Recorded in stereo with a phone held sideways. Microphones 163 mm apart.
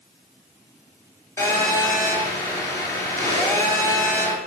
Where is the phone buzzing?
20° left (ahead or behind), 4.5 m.